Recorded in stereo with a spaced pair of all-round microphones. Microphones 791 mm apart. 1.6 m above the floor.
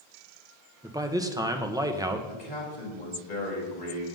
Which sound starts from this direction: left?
A man speaking, at 2.3 s.